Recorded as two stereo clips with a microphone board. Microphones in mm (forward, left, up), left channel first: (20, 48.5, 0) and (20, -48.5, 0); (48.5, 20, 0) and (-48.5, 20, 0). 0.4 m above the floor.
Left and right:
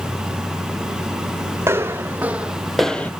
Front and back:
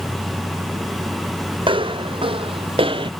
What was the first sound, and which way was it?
Footsteps, 155° right.